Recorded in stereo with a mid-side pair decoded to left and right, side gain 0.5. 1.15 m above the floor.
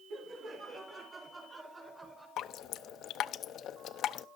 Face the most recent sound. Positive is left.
turn(degrees=65)